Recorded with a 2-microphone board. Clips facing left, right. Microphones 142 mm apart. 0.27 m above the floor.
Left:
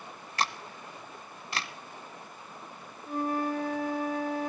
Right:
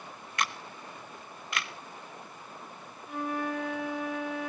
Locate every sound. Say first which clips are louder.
0.4 s a camera shutter: left 2 dB; 35° left (ahead or behind), 1.0 m
3.1 s a flute: left 3 dB; 35° left (ahead or behind), 1.5 m